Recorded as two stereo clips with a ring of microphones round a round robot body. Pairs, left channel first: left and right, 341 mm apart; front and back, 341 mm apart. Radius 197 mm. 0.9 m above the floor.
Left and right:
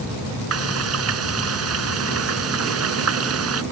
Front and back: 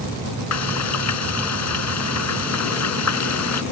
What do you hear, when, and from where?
0.5 s frying: 40° right